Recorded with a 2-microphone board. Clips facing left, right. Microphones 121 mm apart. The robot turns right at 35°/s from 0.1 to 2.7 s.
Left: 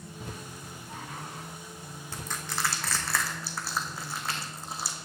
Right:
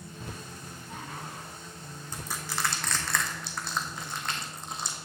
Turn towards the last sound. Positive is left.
turn(degrees=5)  # may be behind; listen again after turning